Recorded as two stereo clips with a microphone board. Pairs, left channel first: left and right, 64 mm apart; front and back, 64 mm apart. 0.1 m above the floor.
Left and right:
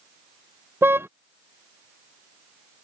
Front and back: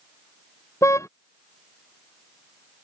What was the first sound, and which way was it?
A car horn, 40° right.